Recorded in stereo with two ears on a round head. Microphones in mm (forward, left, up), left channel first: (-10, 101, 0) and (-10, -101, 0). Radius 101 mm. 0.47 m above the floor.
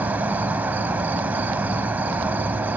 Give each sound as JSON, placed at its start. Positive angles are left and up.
{"t": 0.0, "sound": "an insect", "side_deg": -5, "distance_m": 0.7}